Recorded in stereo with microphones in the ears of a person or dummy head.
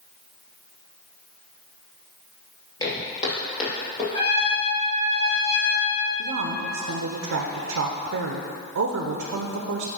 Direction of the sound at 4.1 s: 30° left (ahead or behind).